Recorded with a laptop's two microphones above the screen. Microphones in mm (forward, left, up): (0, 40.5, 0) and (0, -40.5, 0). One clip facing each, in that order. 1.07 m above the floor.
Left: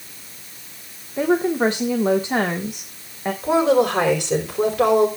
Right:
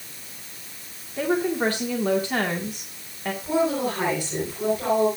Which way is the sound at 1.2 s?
20° left (ahead or behind).